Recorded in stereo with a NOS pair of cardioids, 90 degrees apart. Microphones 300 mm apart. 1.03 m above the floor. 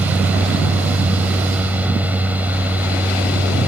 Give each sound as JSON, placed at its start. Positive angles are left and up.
{"t": 0.0, "sound": "a fan", "azimuth_deg": -5}